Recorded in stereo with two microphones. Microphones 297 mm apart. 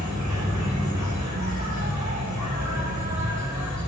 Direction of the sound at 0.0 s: 70° right (ahead or behind).